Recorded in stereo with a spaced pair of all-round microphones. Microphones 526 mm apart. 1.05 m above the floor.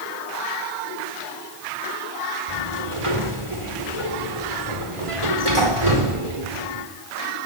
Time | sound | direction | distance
2.5 | a sliding door | 70° right (ahead or behind) | 4.5 m